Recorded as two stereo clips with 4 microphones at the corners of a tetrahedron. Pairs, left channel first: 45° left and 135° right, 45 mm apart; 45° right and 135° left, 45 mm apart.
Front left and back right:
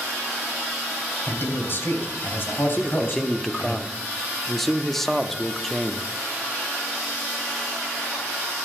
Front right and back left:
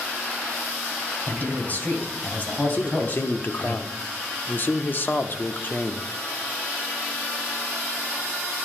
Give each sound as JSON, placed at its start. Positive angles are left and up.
{"t": 1.3, "sound": "a man speaking", "azimuth_deg": 5, "distance_m": 3.0}
{"t": 2.8, "sound": "a man speaking", "azimuth_deg": -35, "distance_m": 0.8}